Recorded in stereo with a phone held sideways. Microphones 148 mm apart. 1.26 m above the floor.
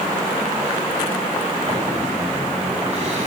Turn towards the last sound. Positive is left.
turn(degrees=-45)  # may be behind; listen again after turning